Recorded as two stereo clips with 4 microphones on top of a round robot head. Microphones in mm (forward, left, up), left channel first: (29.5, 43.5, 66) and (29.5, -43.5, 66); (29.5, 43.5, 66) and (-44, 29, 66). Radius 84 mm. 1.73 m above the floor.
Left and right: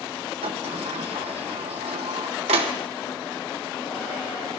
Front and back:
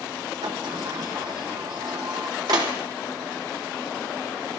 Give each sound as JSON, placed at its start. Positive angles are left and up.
{"t": 0.4, "sound": "a sliding door", "azimuth_deg": -115, "distance_m": 1.2}